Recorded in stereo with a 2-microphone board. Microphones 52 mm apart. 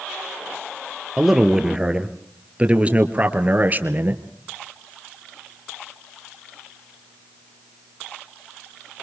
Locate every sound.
1.2 s a man speaking: 5° right (ahead or behind), 3 m; by 4.2 s 40° right (ahead or behind), 3 m